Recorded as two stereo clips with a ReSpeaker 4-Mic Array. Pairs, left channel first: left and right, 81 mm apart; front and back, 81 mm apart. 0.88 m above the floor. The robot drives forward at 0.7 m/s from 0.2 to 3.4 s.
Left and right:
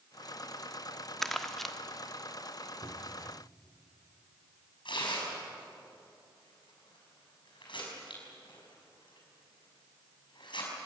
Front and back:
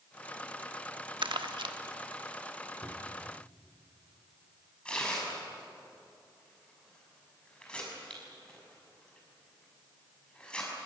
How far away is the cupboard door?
About 2.5 m.